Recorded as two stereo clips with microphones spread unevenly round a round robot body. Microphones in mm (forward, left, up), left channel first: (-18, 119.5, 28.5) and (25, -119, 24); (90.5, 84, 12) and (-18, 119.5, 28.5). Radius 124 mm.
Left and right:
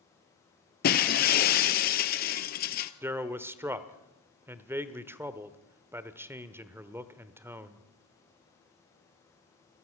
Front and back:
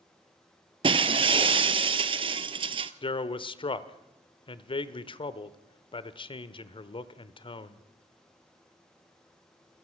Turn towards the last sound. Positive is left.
turn(degrees=0)